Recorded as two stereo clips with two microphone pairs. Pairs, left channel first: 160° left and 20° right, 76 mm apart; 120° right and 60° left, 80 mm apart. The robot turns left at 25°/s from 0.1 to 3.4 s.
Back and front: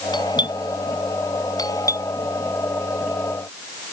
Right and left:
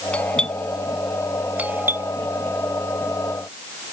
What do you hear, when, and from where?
0.1 s a doorbell: 165° left; by 2.1 s 115° left